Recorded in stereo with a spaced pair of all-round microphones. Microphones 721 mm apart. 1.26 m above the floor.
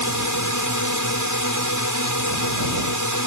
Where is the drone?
25° left (ahead or behind).